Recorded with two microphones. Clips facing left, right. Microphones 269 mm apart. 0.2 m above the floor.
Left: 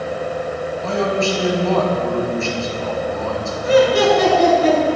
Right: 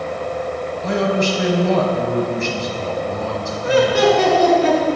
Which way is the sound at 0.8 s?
20° right (ahead or behind).